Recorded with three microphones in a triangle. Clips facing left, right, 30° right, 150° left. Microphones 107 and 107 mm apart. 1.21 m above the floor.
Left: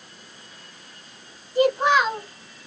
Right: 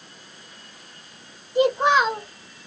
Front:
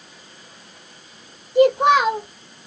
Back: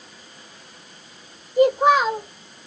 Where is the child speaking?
25° right, 0.9 m.